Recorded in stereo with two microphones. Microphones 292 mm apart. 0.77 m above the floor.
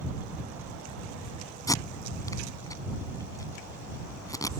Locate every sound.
1.7 s tape being pulled: 10° left (ahead or behind)